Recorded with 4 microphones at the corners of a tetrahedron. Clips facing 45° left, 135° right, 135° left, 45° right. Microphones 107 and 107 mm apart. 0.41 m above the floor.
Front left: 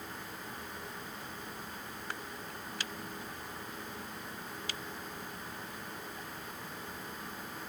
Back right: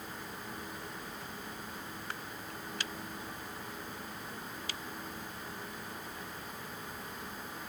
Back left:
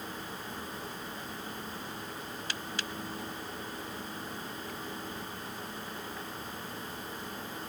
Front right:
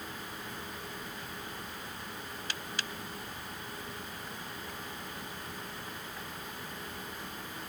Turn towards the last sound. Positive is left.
No sound to turn to.